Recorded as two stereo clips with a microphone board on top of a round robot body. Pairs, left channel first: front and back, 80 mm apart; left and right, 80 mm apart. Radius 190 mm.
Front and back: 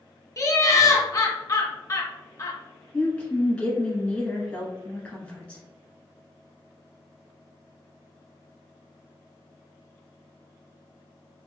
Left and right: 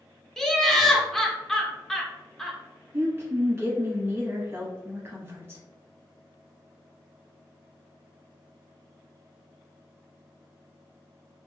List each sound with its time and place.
0.4 s laughter: 10° left, 0.8 m
2.9 s a woman speaking: 60° right, 1.5 m